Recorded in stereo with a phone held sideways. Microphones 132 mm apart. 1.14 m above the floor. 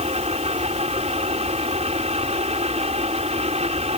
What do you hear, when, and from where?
0.0 s a fan: 55° right (ahead or behind)